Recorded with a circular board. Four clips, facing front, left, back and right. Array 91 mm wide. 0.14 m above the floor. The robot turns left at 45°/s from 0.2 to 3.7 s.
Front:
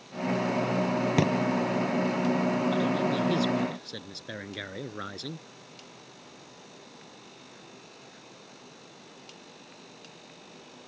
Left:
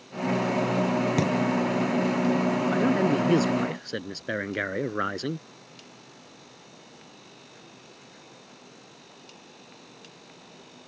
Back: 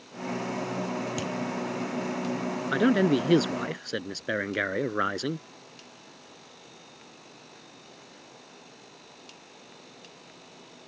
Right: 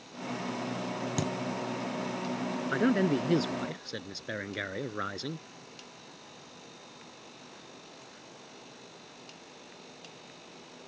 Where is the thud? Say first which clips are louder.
Left 8 dB, front 8 dB; 25° left; by 1.3 s 15° left.